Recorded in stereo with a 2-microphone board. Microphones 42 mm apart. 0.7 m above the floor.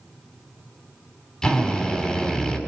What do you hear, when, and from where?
1.4 s a drill: 20° left (ahead or behind), 6 m